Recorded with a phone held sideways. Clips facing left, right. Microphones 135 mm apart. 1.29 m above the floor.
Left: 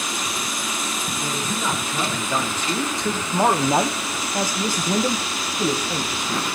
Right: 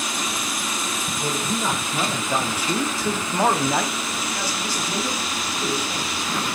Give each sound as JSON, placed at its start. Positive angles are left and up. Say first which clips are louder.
{"t": 1.2, "sound": "a man speaking", "louder": "right 2 dB", "side_deg": -20, "distance_m": 1.9}